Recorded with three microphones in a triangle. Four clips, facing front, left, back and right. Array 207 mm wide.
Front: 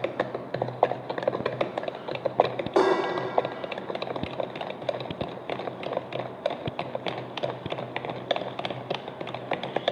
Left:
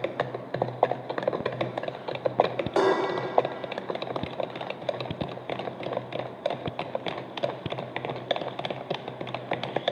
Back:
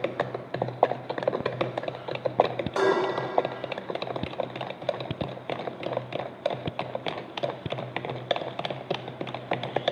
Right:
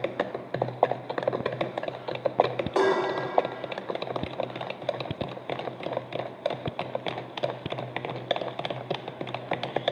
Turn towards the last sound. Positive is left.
turn(degrees=5)